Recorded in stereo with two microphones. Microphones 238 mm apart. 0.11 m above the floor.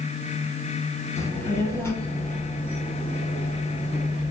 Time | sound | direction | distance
1.2 | a child speaking | 10° left (ahead or behind) | 0.9 m